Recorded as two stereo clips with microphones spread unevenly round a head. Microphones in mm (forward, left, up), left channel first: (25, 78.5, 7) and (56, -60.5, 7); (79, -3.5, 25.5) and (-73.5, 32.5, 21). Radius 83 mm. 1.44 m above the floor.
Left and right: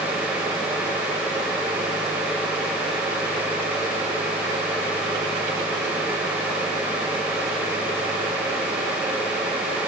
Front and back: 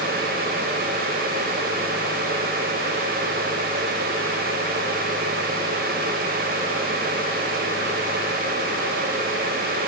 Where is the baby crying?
No baby crying in this recording.